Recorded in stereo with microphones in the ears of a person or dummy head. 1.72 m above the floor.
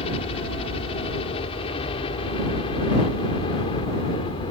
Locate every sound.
0.0 s a helicopter: 35° left (ahead or behind); by 4.5 s 30° left (ahead or behind)